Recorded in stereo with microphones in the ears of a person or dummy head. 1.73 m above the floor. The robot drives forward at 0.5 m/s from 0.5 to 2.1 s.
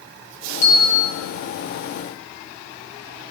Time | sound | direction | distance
0.6 | a bell | 45° left (ahead or behind) | 9 m